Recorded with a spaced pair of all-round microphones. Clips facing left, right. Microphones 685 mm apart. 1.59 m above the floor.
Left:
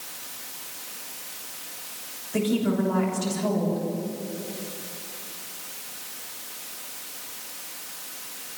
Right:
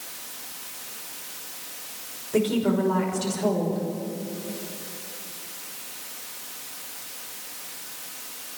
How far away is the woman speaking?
About 6.5 m.